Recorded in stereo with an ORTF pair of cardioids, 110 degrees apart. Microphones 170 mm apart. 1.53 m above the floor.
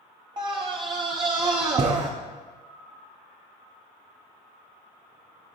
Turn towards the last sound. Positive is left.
turn(degrees=-30)